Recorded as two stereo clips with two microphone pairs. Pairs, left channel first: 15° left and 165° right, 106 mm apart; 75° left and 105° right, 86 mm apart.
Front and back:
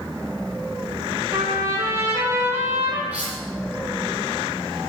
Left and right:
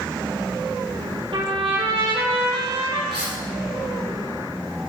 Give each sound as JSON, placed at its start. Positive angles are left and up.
{"t": 1.3, "sound": "a trumpet", "azimuth_deg": -100, "distance_m": 4.5}
{"t": 3.1, "sound": "cutlery clinking", "azimuth_deg": -85, "distance_m": 6.0}